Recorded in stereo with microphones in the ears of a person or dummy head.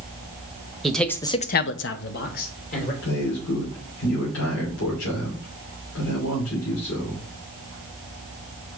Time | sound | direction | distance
0.8 | a man speaking | 5° left (ahead or behind) | 1.0 m
3.0 | a man speaking | 70° left (ahead or behind) | 3 m